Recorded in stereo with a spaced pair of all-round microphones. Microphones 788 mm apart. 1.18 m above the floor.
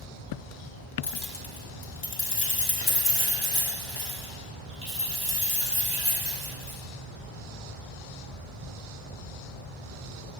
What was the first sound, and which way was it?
Keys jangling, 60° left (ahead or behind).